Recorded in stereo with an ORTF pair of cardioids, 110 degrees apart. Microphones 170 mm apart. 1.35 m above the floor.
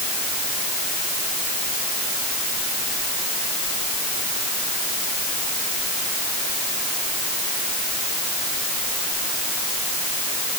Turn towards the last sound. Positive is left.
No sound to turn to.